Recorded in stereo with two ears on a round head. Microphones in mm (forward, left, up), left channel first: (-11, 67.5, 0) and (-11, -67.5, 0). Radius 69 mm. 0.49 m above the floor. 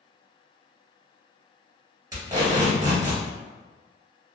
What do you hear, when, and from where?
2.1 s tape being pulled: 25° right (ahead or behind), 1.9 m